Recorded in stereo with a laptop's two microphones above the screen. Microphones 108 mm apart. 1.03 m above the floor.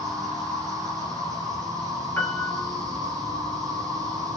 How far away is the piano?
About 2.0 m.